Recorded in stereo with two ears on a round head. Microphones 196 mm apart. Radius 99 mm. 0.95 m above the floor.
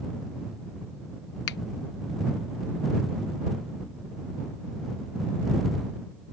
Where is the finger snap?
55° left (ahead or behind).